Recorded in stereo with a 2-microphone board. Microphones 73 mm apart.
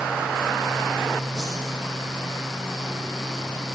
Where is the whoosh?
5° right (ahead or behind), 7.5 m.